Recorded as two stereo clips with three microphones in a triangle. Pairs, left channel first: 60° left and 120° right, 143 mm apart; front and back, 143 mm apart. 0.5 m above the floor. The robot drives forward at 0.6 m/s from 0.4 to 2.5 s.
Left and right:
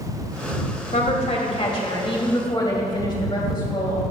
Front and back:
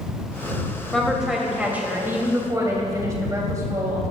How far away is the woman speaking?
About 2 m.